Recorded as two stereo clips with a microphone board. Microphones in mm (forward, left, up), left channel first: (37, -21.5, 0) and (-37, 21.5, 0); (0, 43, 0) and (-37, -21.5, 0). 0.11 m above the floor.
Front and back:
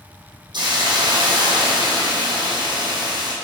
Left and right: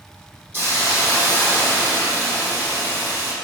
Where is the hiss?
Straight behind, 4 m.